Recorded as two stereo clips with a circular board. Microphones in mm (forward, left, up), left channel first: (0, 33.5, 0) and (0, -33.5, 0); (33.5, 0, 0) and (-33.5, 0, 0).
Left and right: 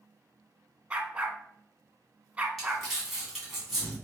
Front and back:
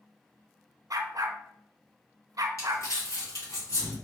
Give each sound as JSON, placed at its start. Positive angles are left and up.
{"t": 0.9, "sound": "a dog barking", "azimuth_deg": -160, "distance_m": 0.5}
{"t": 2.6, "sound": "crumpling", "azimuth_deg": -5, "distance_m": 2.0}